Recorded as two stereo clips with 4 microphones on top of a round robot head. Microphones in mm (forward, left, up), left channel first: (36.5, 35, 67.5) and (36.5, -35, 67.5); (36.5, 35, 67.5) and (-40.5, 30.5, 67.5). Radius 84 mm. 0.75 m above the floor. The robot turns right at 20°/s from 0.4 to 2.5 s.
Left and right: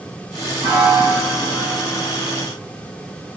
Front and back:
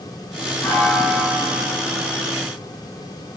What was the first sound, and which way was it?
A piano, 70° right.